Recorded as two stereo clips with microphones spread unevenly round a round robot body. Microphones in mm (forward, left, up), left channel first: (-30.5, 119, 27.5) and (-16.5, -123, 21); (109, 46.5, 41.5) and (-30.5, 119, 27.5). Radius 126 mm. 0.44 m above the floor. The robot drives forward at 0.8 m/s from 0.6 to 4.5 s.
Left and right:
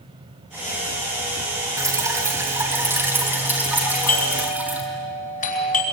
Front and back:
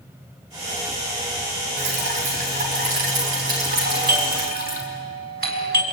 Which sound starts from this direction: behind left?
A doorbell, at 3.8 s.